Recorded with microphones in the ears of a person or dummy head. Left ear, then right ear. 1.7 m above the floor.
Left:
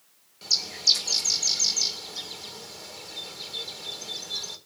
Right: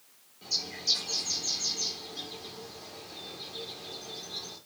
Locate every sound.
0.4 s a bird: 50° left (ahead or behind), 2.5 m